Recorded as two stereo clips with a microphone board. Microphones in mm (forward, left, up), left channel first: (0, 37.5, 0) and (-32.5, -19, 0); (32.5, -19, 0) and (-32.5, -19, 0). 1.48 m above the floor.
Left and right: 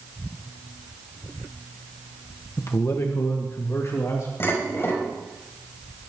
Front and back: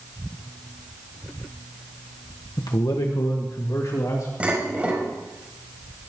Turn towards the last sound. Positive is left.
turn(degrees=110)